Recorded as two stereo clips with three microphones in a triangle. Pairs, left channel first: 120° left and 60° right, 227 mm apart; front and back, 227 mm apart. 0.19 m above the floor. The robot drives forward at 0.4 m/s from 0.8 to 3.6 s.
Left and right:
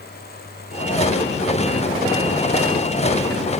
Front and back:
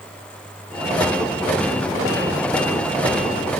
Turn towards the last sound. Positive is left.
No sound to turn to.